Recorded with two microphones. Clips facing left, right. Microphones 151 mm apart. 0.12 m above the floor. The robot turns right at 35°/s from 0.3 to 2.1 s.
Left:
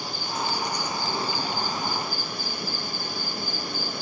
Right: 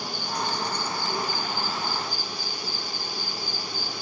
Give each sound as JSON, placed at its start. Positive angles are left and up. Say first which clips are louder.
{"t": 0.0, "sound": "an insect", "louder": "even", "azimuth_deg": 0, "distance_m": 1.6}